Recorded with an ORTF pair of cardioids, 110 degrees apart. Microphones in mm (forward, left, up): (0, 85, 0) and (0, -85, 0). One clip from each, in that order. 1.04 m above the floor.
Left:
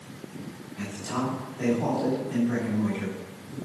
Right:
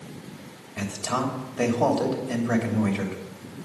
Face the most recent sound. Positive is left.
turn(degrees=-65)